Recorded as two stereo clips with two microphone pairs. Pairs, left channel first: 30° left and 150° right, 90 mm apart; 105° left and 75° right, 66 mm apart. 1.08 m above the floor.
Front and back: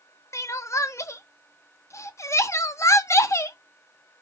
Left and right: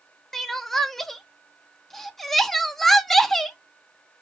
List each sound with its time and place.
0.3 s crying: 25° left, 0.5 m